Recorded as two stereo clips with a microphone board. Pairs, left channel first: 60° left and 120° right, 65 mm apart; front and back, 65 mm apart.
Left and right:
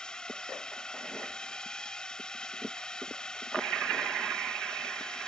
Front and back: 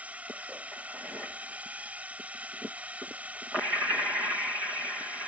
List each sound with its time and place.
0.0 s a drone: 130° left